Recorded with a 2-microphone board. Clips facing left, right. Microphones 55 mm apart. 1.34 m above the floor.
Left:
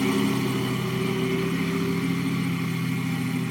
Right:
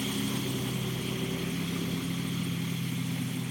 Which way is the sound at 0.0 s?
70° left (ahead or behind).